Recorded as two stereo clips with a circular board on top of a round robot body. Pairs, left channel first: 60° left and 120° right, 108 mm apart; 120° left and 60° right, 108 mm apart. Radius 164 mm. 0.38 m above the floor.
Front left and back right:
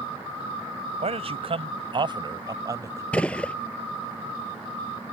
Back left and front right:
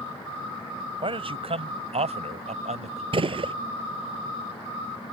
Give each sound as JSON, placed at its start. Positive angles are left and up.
{"t": 1.0, "sound": "a man speaking", "azimuth_deg": -95}
{"t": 3.1, "sound": "a gunshot", "azimuth_deg": -20}